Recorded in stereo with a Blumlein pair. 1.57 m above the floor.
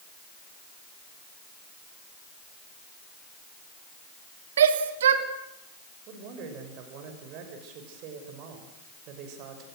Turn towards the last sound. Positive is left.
turn(degrees=-40)